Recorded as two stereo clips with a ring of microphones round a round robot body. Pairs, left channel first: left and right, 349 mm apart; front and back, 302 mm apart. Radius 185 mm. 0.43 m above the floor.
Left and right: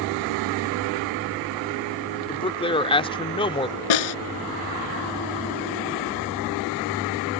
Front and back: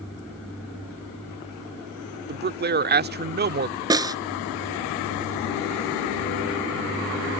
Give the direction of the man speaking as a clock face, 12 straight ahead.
7 o'clock.